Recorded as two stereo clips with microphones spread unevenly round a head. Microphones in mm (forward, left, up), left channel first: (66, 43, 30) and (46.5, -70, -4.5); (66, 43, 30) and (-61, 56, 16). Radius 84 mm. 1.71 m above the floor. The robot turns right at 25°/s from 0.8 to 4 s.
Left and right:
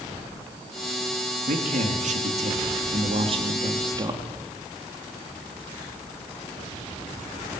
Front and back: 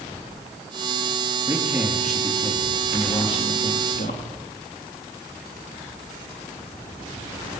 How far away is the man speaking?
About 4 m.